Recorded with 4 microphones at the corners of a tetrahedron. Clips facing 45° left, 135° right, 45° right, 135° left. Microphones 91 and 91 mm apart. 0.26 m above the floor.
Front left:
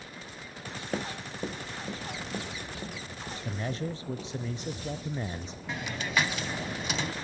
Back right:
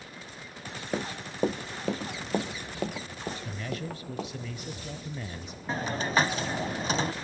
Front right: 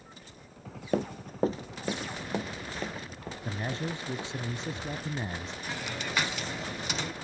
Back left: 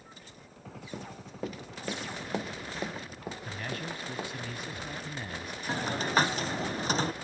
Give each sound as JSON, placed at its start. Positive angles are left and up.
{"t": 0.9, "sound": "running footsteps", "azimuth_deg": -55, "distance_m": 0.8}
{"t": 3.5, "sound": "a man speaking", "azimuth_deg": 5, "distance_m": 1.1}
{"t": 5.7, "sound": "a hiss", "azimuth_deg": 175, "distance_m": 1.3}